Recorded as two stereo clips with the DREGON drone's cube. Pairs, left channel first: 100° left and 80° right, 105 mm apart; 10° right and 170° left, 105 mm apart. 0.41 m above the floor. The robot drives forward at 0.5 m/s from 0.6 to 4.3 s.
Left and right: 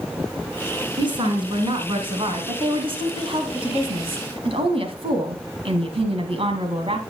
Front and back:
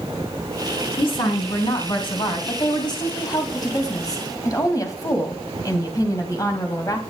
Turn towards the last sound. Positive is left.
turn(degrees=-65)